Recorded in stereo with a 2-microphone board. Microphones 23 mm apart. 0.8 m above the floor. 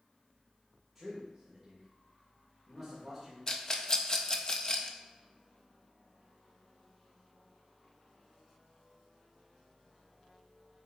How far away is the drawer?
No drawer in this recording.